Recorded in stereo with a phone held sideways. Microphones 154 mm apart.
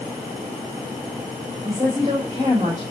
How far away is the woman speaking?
About 5.5 m.